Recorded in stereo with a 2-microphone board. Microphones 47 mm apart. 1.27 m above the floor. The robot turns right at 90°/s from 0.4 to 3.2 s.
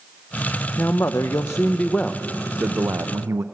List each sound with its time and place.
0.8 s a man speaking: 45° left, 0.6 m; by 3.4 s 100° right, 0.6 m